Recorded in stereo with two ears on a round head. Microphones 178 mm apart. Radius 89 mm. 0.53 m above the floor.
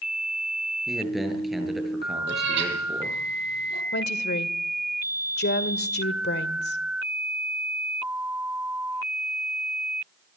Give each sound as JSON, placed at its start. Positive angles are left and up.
{"t": 0.9, "sound": "a man speaking", "side_deg": 0, "distance_m": 7.5}
{"t": 2.3, "sound": "a cat meowing", "side_deg": -60, "distance_m": 6.5}
{"t": 3.9, "sound": "a woman speaking", "side_deg": 55, "distance_m": 1.8}